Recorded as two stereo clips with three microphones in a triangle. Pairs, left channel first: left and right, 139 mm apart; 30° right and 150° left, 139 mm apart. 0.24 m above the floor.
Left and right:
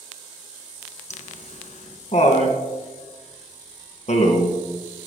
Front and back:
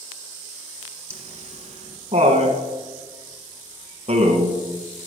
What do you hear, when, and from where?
1.1 s laughter: 115° left, 2.5 m